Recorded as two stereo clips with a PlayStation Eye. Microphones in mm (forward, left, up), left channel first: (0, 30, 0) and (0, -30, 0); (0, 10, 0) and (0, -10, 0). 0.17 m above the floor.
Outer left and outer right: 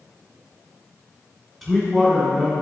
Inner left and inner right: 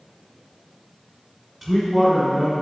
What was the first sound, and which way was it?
A man speaking, 5° left (ahead or behind).